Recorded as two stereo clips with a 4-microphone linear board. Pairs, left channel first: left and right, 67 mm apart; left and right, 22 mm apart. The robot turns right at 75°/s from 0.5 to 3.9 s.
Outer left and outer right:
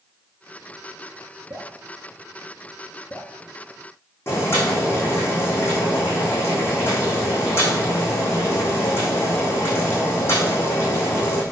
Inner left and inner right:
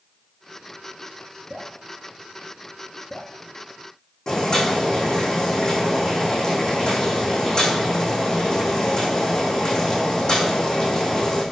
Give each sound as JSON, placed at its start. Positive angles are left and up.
{"t": 1.5, "sound": "dripping", "side_deg": -50, "distance_m": 2.5}
{"t": 4.3, "sound": "boiling", "side_deg": 35, "distance_m": 6.0}